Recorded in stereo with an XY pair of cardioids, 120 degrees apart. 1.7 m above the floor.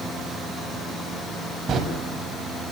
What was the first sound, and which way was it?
A door slam, 35° right.